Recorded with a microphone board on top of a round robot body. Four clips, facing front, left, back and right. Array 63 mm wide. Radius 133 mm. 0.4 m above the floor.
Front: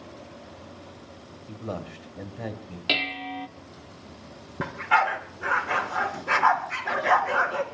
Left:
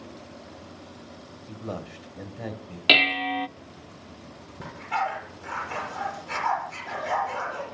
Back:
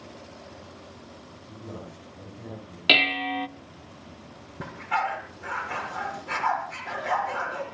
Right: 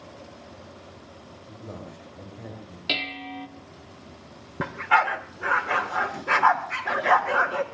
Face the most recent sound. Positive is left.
turn(degrees=-60)